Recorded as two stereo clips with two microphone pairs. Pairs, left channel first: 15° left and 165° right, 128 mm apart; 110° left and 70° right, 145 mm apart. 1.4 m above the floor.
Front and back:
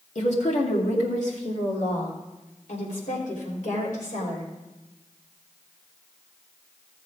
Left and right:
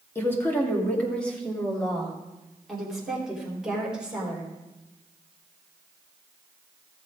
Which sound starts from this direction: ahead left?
A woman speaking, at 0.1 s.